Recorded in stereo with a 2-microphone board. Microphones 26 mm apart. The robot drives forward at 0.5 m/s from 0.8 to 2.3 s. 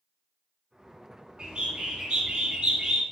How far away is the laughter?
No laughter in this recording.